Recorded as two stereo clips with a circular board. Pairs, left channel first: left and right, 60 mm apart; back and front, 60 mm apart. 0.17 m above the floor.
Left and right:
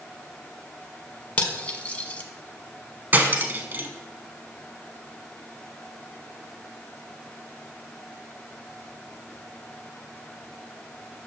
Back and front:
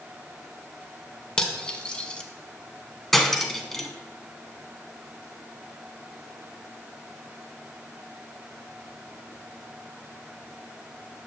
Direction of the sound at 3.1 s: 100° right.